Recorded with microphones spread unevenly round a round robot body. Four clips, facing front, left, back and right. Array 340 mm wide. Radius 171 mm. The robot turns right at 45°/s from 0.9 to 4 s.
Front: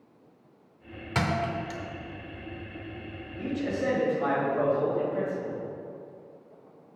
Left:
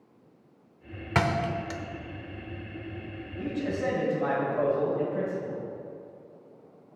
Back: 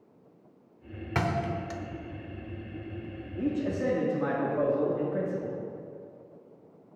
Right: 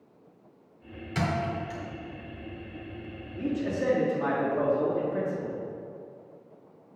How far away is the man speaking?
About 2 m.